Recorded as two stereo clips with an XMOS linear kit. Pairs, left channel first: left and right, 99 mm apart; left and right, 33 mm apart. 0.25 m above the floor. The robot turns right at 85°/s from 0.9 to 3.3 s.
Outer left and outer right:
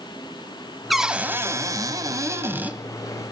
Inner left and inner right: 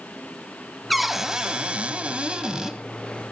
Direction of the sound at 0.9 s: Straight behind.